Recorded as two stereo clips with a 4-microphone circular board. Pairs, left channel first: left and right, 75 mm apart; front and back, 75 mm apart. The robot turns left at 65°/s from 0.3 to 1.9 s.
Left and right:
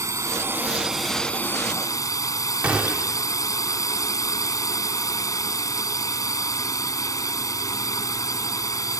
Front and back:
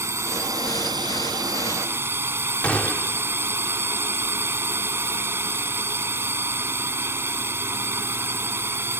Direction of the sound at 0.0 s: 130° right.